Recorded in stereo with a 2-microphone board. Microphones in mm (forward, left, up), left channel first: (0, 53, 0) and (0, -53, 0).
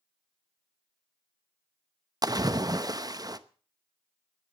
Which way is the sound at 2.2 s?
35° right (ahead or behind).